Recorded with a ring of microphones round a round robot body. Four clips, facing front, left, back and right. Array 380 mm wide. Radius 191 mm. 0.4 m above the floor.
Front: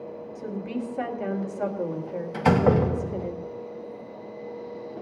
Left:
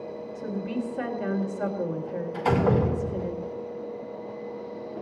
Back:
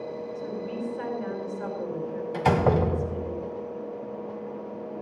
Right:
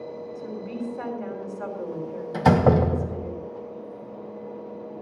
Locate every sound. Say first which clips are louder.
0.3 s a woman speaking: left 4 dB, front 4 dB; 35° left, 3 m
2.3 s a door slam: right 5 dB, front 2 dB; 75° right, 1.7 m